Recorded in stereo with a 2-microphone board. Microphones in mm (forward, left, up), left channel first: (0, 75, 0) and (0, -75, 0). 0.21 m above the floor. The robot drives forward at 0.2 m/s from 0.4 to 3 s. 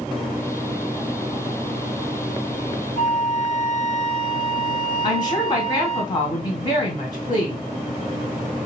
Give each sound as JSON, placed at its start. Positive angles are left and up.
{"t": 3.0, "sound": "a flute", "side_deg": 45, "distance_m": 0.7}
{"t": 5.0, "sound": "a woman speaking", "side_deg": 30, "distance_m": 2.5}